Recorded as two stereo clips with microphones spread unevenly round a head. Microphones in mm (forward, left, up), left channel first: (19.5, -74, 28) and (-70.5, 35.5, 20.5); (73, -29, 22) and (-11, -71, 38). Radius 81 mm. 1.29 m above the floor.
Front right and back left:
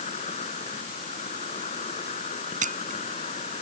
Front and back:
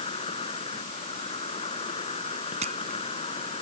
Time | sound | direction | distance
0.0 | an insect | 5° left | ?
2.6 | a camera shutter | 165° left | ?